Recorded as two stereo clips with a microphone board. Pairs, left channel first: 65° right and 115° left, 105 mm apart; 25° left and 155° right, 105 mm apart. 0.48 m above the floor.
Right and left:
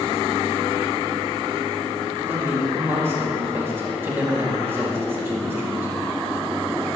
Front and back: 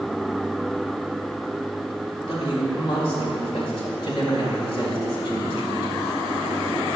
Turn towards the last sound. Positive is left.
turn(degrees=45)